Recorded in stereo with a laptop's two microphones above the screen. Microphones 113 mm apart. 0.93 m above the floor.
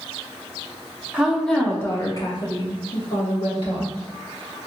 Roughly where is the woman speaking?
Centre.